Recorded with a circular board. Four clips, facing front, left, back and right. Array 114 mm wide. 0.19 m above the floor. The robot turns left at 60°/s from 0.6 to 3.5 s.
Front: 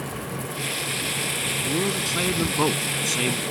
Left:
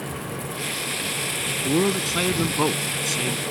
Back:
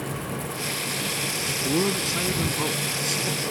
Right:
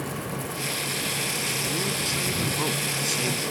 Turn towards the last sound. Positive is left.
turn(degrees=-5)